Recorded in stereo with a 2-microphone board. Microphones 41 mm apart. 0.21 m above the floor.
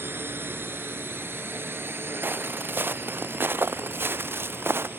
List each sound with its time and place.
0.0 s a drone: 65° right (ahead or behind); by 5.0 s 60° right (ahead or behind)
2.2 s footsteps: 55° right (ahead or behind); by 4.9 s 70° right (ahead or behind)